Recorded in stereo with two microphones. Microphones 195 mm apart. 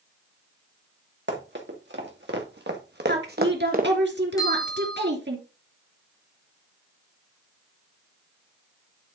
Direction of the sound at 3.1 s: 65° right (ahead or behind).